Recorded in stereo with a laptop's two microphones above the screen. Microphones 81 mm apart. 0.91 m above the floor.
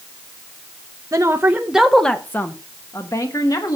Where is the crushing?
No crushing in this recording.